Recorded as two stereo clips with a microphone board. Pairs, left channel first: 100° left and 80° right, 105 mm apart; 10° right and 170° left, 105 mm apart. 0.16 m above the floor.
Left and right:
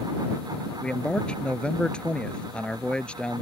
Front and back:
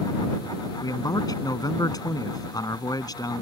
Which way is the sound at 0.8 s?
25° left.